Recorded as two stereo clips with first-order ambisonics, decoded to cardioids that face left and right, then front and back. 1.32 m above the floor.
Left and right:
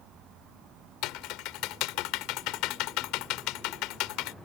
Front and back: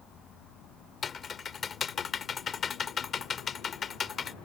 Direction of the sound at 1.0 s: 65° left.